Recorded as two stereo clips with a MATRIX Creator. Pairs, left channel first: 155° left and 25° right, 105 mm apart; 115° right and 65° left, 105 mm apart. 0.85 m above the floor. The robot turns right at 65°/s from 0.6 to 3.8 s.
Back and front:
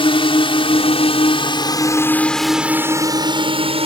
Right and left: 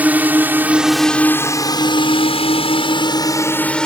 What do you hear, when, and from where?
0.0 s a drone: 140° left; by 3.9 s 30° right